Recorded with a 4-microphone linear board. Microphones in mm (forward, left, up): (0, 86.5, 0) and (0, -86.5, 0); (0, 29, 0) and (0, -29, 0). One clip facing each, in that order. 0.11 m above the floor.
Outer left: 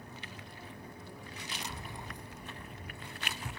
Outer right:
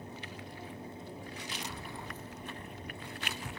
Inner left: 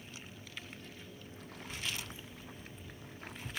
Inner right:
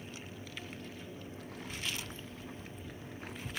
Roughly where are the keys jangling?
Centre.